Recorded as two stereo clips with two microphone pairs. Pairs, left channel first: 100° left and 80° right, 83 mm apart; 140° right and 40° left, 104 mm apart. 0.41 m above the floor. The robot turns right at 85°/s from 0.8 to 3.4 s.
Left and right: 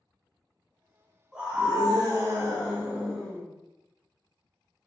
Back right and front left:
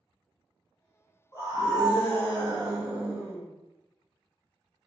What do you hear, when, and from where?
1.3 s a scream: 155° right, 1.4 m; by 3.5 s 25° left, 1.4 m